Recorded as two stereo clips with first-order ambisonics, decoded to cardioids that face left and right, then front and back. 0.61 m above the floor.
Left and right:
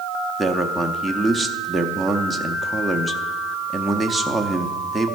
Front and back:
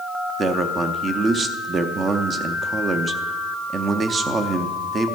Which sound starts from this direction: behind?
A man speaking, at 0.4 s.